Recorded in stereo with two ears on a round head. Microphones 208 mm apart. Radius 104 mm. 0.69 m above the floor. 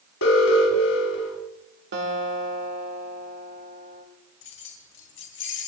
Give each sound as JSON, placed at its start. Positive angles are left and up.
{"t": 0.2, "sound": "an alarm", "side_deg": 65, "distance_m": 4.5}
{"t": 1.9, "sound": "a guitar", "side_deg": -50, "distance_m": 3.0}
{"t": 4.4, "sound": "keys jangling", "side_deg": 60, "distance_m": 4.0}